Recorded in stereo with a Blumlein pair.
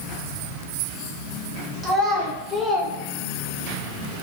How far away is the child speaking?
About 1.1 m.